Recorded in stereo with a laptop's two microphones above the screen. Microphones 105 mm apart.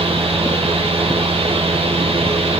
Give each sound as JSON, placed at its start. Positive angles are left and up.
{"t": 0.0, "sound": "a fan", "side_deg": -75, "distance_m": 1.4}